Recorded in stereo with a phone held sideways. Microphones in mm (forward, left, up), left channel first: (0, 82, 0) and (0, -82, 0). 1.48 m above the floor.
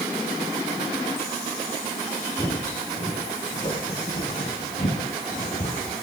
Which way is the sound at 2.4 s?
25° left (ahead or behind).